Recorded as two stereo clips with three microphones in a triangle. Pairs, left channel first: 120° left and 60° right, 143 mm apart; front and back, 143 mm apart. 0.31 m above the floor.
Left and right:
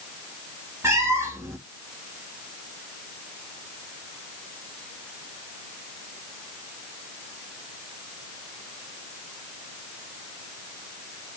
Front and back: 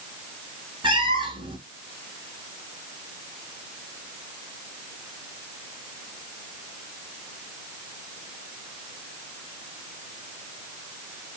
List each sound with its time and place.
0.8 s a cat meowing: 130° right, 0.7 m